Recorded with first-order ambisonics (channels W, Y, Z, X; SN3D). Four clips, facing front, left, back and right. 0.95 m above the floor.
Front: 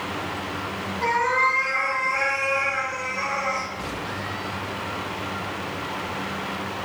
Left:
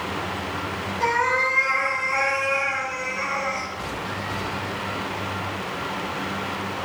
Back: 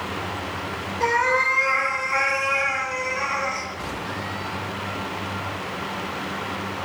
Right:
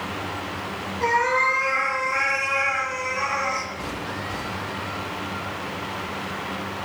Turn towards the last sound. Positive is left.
turn(degrees=-120)